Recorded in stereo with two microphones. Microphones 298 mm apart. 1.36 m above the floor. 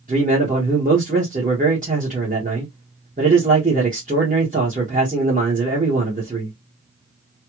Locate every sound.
0.1 s a man speaking: 25° right (ahead or behind), 1.4 m